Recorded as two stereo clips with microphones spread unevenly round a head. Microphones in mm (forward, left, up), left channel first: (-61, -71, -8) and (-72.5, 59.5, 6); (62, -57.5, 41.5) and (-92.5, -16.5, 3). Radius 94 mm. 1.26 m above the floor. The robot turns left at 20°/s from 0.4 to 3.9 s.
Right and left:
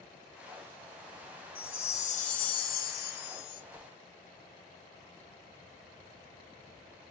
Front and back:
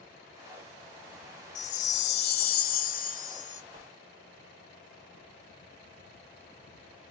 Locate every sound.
1.6 s a chime: 20° right, 0.5 m; by 3.6 s 65° right, 0.5 m
3.7 s a whoosh: 160° left, 0.8 m; by 3.9 s 155° left, 0.8 m